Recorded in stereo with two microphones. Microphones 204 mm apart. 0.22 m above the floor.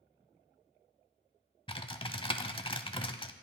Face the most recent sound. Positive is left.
turn(degrees=25)  # may be behind; listen again after turning